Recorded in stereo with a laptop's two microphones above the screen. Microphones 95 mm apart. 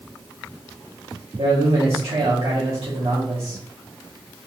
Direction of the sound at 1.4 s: 80° right.